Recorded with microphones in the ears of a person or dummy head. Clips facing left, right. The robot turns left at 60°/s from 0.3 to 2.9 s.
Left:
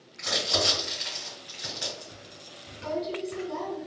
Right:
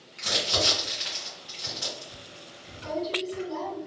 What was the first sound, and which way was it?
Crumpling, 45° right (ahead or behind).